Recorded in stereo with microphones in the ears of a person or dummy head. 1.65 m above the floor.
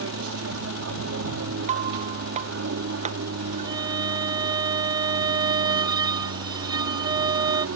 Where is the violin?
15° right (ahead or behind).